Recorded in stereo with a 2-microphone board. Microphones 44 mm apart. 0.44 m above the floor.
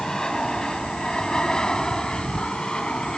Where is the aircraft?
15° left (ahead or behind); by 3.2 s 20° left (ahead or behind).